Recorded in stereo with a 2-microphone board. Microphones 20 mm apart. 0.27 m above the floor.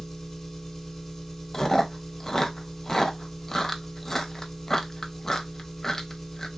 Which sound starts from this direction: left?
Chewing, at 1.5 s.